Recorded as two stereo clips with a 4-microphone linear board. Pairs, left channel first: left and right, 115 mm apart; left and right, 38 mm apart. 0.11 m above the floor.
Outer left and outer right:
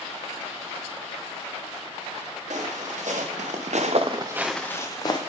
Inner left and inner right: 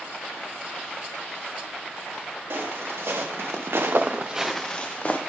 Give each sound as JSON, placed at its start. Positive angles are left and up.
{"t": 2.5, "sound": "footsteps", "side_deg": -80, "distance_m": 2.5}